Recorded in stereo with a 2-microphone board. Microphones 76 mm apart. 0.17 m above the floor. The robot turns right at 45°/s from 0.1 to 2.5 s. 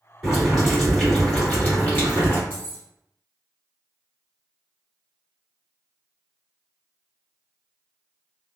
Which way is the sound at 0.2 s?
5° right (ahead or behind).